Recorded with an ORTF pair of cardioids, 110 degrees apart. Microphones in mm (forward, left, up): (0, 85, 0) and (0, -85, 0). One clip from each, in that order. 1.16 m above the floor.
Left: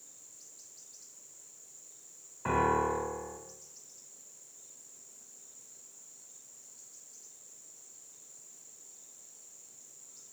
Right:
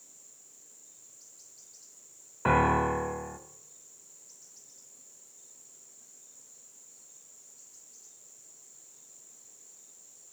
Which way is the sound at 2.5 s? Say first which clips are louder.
Right 4 dB; 50° right.